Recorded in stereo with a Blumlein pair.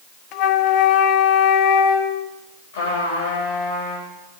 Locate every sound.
0.3 s a flute: 40° left, 0.7 m
2.7 s a trumpet: 50° left, 3.5 m